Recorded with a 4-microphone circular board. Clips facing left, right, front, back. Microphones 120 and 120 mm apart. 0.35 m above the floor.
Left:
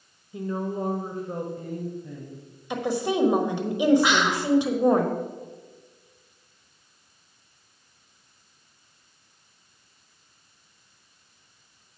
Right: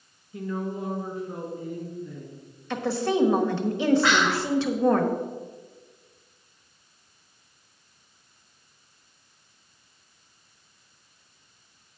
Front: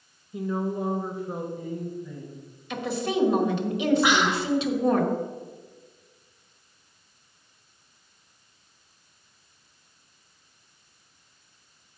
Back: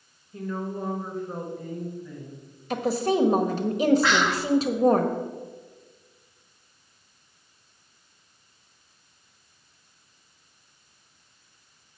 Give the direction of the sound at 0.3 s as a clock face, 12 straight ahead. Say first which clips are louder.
Left 2 dB, front 3 dB; 10 o'clock.